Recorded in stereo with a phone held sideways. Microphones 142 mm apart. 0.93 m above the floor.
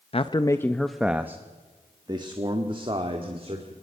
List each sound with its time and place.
0.1 s a man speaking: 45° left (ahead or behind), 0.6 m; by 3.7 s 40° right (ahead or behind), 2 m